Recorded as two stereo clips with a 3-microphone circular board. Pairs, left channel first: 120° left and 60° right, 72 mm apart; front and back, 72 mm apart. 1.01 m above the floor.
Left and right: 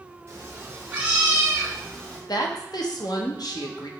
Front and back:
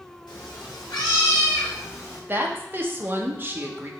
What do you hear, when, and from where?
0.3 s a cat meowing: 10° right, 1.6 m; by 2.2 s 50° left, 1.6 m
2.3 s a woman speaking: 125° left, 0.8 m